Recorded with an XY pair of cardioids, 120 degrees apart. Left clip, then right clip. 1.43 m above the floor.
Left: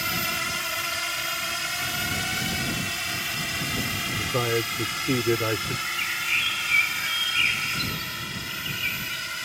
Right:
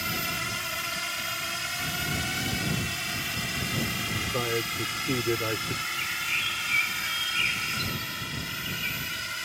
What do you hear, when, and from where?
0.0 s a drone: 25° left; by 9.5 s 10° left
4.2 s a man speaking: 25° left
5.9 s a bird: 25° left